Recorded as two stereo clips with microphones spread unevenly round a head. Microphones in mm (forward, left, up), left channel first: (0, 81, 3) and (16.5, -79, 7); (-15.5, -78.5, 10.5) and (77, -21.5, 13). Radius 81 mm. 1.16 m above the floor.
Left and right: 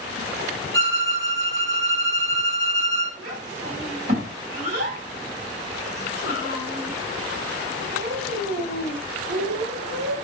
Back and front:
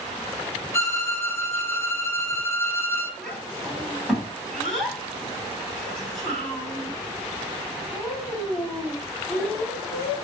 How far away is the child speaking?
About 2.5 m.